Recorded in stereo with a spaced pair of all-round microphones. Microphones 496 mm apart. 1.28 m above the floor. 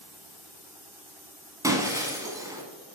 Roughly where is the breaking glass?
Centre.